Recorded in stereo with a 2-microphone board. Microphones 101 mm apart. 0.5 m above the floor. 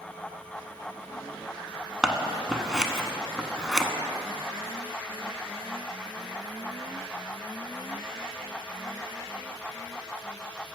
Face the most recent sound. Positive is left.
turn(degrees=-5)  # may be behind; listen again after turning